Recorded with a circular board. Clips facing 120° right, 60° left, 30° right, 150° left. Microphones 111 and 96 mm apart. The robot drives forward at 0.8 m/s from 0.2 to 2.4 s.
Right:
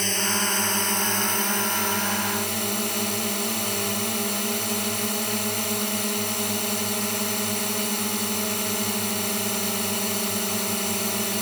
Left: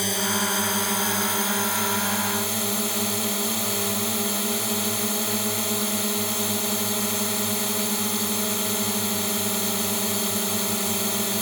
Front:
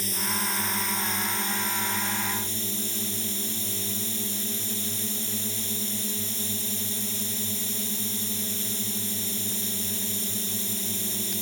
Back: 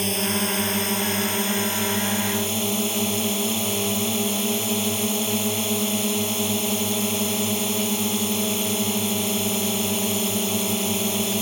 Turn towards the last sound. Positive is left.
turn(degrees=150)